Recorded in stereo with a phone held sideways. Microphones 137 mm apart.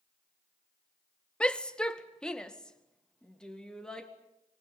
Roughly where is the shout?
Centre.